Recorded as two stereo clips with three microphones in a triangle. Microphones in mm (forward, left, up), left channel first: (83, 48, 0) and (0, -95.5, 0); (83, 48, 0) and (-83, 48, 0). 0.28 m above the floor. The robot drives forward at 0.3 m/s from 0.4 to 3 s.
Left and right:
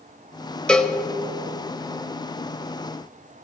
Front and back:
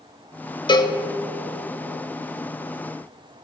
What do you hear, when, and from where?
0.7 s a cowbell: 20° right, 0.5 m; by 0.9 s 25° right, 0.5 m